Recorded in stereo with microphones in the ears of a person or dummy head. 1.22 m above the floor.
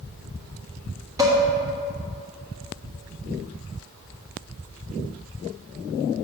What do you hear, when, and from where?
1.2 s dishes clattering: 15° right (ahead or behind), 1.4 m